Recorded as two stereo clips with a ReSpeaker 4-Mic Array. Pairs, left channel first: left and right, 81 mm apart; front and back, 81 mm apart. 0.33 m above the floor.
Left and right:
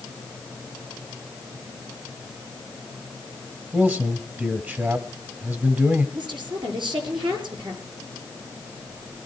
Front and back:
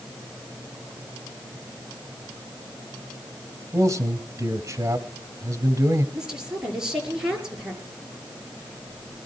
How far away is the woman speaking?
About 7 m.